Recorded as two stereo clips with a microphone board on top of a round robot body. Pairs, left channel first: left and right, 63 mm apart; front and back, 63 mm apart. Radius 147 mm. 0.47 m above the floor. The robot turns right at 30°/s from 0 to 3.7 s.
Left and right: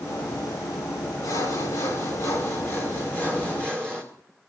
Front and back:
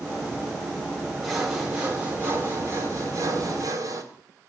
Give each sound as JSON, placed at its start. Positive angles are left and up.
{"t": 1.2, "sound": "sawing", "azimuth_deg": 90, "distance_m": 2.5}